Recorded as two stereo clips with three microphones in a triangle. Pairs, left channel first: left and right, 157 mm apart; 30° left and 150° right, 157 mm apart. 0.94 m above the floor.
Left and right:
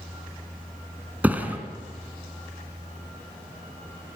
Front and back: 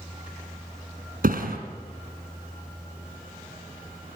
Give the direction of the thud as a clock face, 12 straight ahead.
6 o'clock.